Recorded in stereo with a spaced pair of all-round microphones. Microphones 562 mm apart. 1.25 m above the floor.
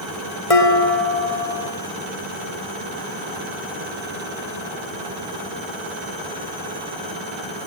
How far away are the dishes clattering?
About 2 m.